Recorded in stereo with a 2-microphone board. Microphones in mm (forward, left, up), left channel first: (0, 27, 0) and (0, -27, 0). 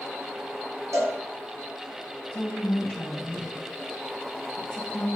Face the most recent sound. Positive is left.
turn(degrees=20)  # may be behind; listen again after turning